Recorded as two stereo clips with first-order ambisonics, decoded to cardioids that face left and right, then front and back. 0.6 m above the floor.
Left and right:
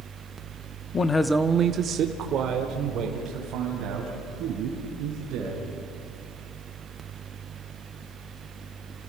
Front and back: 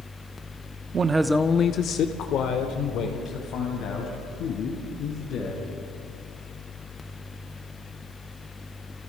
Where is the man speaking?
140° left, 0.8 m; by 5.7 s 45° right, 6 m.